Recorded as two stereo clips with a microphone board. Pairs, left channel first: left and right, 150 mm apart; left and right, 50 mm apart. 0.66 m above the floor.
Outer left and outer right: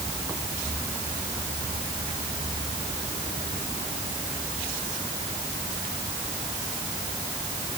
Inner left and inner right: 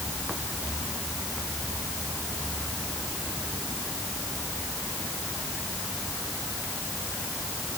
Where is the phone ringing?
No phone ringing in this recording.